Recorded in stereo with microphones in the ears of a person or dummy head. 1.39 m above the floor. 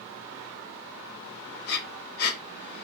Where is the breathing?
55° left (ahead or behind), 1.3 m.